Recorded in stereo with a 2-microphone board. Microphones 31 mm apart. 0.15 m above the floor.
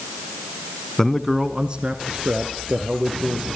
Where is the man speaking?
15° left (ahead or behind), 1.1 m; by 3.5 s 60° right (ahead or behind), 3.5 m.